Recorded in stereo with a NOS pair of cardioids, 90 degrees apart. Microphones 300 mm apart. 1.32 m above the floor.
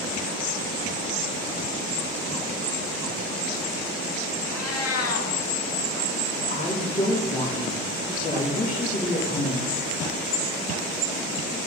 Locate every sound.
4.5 s a cat meowing: 55° left, 1.6 m
6.5 s a woman speaking: 25° left, 3.5 m